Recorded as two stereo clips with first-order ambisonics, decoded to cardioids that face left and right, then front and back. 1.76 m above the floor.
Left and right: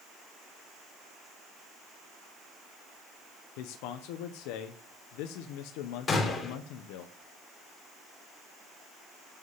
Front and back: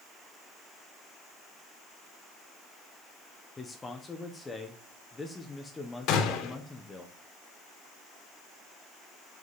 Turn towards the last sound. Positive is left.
turn(degrees=30)